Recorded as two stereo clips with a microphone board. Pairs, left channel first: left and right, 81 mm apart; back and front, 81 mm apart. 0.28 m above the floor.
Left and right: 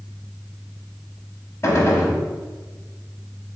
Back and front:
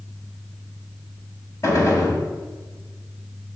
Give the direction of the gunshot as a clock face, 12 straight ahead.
7 o'clock.